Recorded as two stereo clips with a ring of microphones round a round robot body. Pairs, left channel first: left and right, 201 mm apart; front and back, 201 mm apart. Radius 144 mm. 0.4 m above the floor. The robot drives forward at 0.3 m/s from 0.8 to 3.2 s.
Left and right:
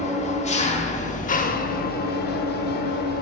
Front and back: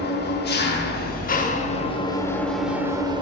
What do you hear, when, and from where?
0.0 s an engine running: 35° left, 0.7 m; by 3.2 s 115° left, 0.5 m